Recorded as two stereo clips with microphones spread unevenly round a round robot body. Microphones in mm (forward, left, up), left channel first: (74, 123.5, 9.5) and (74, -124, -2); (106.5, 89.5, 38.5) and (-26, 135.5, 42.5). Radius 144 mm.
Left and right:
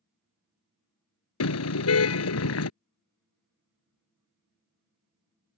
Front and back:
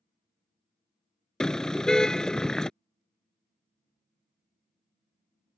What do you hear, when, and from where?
1.4 s a car horn: 65° left